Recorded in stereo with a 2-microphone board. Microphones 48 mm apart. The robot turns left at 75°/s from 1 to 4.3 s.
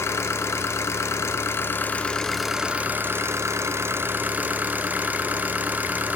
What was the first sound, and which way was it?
An engine running, 105° left.